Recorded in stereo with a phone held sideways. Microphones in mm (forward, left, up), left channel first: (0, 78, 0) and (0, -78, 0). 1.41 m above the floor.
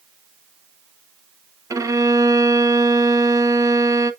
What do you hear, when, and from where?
1.7 s a violin: 20° right (ahead or behind), 0.7 m